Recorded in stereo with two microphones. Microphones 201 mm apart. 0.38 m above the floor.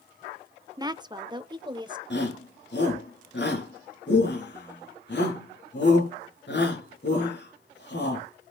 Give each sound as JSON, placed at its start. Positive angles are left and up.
{"t": 0.8, "sound": "a woman speaking", "side_deg": -20, "distance_m": 0.8}
{"t": 2.1, "sound": "a shout", "side_deg": 60, "distance_m": 4.5}